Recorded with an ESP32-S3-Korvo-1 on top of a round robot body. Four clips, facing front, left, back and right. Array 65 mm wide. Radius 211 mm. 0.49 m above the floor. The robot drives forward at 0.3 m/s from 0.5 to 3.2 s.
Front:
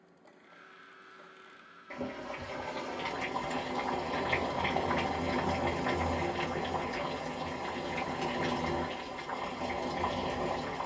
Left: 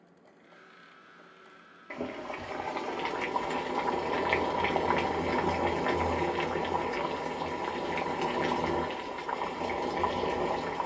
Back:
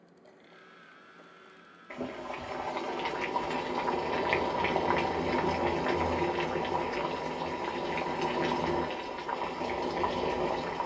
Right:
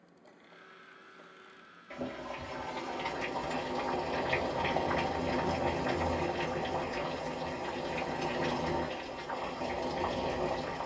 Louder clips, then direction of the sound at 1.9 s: Left 3 dB, back 1 dB; 105° left.